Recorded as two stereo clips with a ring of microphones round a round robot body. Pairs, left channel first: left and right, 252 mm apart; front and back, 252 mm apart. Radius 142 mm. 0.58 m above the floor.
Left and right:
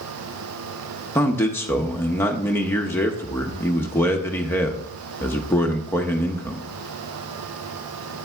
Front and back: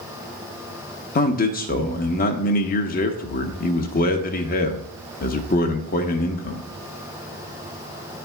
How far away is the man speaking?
About 0.9 m.